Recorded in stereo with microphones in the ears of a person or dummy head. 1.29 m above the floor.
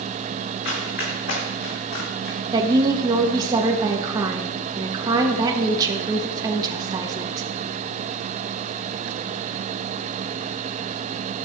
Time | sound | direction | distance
0.7 | running footsteps | 70° left (ahead or behind) | 5 m
2.5 | a woman speaking | 20° right (ahead or behind) | 1.4 m